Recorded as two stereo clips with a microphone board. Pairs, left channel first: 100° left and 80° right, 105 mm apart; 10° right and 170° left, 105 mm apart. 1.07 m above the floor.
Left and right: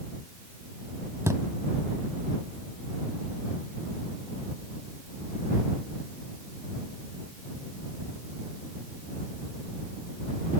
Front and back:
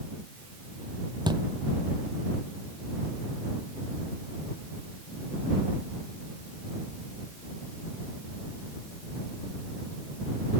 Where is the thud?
145° right.